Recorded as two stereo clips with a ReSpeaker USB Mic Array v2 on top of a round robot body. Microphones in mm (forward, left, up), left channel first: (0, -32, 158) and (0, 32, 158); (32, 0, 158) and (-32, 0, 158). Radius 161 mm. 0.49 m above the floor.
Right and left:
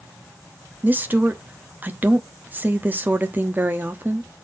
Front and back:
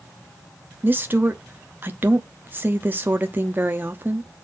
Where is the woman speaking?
135° left, 1.3 m.